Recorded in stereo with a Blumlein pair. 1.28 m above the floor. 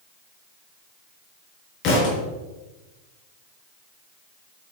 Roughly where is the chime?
I don't hear a chime.